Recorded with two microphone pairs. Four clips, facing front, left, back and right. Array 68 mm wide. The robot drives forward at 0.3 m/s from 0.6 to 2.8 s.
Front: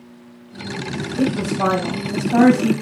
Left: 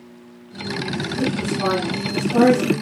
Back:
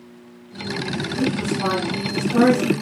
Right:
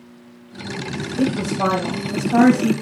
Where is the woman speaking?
55° right, 4 m; by 2.7 s 60° right, 4 m.